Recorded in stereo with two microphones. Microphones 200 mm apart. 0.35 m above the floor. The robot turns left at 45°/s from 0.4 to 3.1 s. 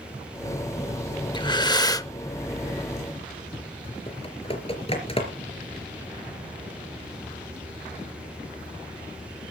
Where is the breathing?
25° left (ahead or behind), 0.6 m; by 2.1 s 20° left (ahead or behind), 0.6 m.